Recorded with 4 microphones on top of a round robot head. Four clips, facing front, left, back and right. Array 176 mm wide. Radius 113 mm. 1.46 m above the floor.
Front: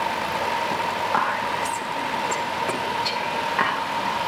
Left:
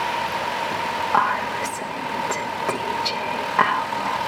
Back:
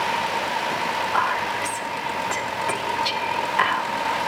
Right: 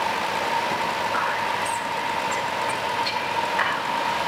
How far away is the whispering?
About 2.5 m.